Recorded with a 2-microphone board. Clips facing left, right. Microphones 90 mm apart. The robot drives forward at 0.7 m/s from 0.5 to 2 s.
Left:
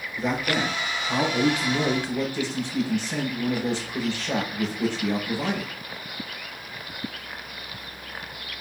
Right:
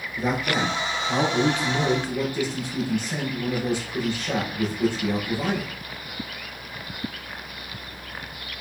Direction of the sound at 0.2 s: 15° right (ahead or behind).